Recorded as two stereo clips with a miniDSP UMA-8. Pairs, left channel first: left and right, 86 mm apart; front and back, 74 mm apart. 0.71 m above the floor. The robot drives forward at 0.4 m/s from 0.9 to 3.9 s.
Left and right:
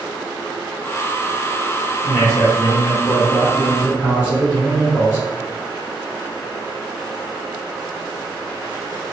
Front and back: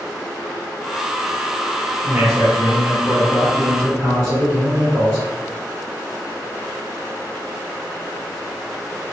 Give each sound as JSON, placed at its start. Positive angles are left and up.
{"t": 2.0, "sound": "a man speaking", "azimuth_deg": 115, "distance_m": 2.0}